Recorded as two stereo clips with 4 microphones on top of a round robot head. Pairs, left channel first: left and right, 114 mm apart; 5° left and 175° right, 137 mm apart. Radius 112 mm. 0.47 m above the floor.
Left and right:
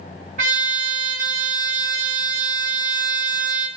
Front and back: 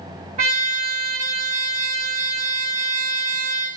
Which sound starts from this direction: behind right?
A trumpet, at 0.4 s.